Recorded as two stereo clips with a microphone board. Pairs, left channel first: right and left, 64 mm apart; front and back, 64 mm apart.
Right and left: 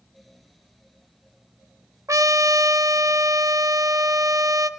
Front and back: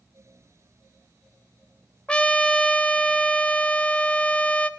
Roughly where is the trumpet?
Left.